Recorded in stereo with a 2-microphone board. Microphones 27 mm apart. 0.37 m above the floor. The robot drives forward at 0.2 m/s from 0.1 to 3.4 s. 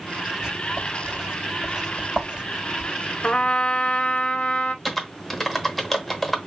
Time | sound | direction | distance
0.4 | writing | 25° right (ahead or behind) | 2 m
3.2 | a trumpet | 40° left (ahead or behind) | 0.5 m
4.8 | typing on a keyboard | 5° left (ahead or behind) | 0.9 m